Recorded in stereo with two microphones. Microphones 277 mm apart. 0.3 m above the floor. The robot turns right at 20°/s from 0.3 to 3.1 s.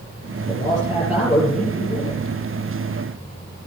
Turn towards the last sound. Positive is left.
turn(degrees=35)